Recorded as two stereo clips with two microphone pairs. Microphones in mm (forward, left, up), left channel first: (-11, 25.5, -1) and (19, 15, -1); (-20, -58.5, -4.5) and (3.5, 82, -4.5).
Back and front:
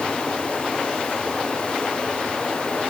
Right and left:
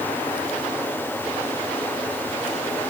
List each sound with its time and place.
Only background noise.